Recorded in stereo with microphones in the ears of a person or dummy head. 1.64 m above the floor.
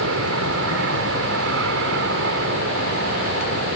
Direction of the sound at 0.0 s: 70° right (ahead or behind).